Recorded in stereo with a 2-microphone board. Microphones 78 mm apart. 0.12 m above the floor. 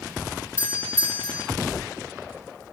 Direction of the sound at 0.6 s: 30° left (ahead or behind).